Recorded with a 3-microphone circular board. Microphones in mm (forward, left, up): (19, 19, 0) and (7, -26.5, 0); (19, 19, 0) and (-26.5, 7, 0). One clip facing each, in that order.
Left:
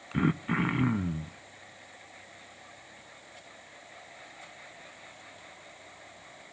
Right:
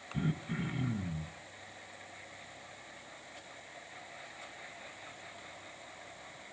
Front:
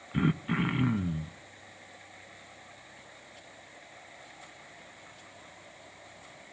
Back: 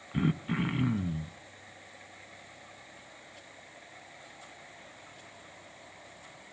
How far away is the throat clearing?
About 0.6 m.